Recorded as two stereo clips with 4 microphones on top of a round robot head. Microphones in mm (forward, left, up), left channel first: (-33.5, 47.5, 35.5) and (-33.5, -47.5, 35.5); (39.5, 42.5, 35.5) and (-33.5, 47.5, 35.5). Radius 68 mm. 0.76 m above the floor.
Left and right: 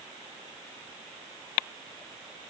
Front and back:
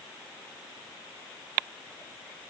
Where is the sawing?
I don't hear sawing.